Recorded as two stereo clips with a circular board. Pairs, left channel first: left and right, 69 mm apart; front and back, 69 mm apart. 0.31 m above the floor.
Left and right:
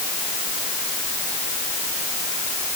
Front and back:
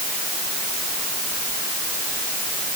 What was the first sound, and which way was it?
Only background noise.